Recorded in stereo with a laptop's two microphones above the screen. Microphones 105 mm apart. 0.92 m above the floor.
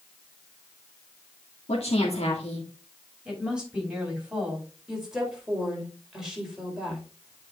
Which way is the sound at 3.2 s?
10° right (ahead or behind).